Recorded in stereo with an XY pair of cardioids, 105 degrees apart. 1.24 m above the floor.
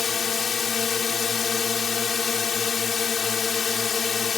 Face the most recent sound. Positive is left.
turn(degrees=45)